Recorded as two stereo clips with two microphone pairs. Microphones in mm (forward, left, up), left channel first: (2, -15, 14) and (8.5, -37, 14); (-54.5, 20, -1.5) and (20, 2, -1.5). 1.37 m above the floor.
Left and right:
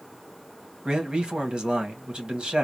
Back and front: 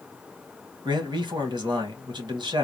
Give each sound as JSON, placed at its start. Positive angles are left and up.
{"t": 0.8, "sound": "a man speaking", "azimuth_deg": -30, "distance_m": 1.6}